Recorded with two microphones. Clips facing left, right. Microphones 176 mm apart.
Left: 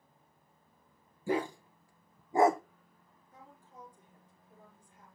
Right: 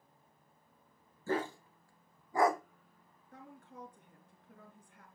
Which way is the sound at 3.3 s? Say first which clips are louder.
Right 3 dB; 70° right (ahead or behind).